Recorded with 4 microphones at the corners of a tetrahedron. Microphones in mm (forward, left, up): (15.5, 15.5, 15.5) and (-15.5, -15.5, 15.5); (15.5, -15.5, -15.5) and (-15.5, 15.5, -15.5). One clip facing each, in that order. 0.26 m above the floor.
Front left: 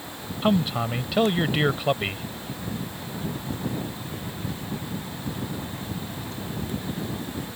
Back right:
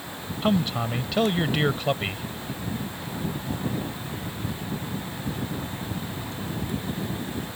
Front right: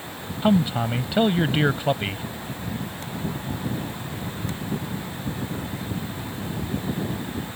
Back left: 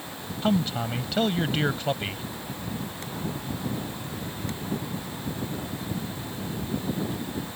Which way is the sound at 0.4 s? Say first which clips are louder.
Front left 1 dB, front right 5 dB; 25° right.